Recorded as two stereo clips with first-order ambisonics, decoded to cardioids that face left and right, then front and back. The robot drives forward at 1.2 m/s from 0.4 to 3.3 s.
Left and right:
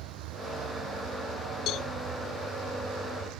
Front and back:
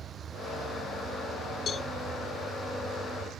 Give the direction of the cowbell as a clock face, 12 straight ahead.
10 o'clock.